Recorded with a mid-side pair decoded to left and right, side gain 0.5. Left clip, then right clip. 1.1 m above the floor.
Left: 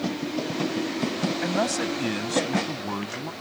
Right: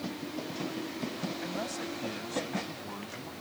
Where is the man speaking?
65° left.